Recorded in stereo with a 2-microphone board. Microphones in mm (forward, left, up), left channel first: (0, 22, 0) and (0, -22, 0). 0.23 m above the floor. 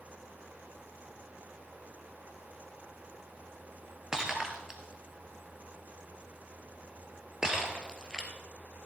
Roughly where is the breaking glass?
Centre.